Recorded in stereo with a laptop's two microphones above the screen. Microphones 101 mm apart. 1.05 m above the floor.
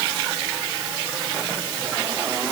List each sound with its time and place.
Only background noise.